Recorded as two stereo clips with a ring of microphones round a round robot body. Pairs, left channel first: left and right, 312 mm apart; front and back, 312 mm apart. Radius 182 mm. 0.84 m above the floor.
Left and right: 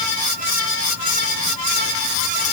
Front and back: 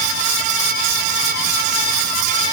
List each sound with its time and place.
Only background noise.